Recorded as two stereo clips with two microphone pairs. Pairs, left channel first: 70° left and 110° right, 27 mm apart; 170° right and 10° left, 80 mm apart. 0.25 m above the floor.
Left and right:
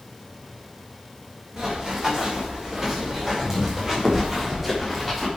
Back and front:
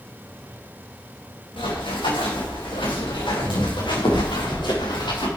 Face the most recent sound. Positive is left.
turn(degrees=165)